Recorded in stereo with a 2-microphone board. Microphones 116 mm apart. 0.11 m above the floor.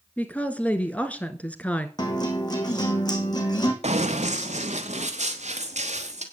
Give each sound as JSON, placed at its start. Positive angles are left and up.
{"t": 0.2, "sound": "a woman speaking", "side_deg": 10, "distance_m": 1.2}
{"t": 2.0, "sound": "a guitar", "side_deg": 35, "distance_m": 2.0}
{"t": 3.8, "sound": "running footsteps", "side_deg": -70, "distance_m": 1.4}